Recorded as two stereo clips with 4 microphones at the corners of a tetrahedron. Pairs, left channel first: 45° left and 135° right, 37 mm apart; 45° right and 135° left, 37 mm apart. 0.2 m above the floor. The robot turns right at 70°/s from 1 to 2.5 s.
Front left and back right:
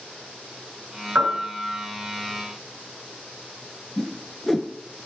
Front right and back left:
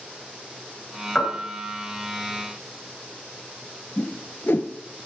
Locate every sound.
1.1 s a piano: 115° right, 3 m; by 1.8 s 70° right, 3 m
4.0 s a whoosh: 45° right, 0.8 m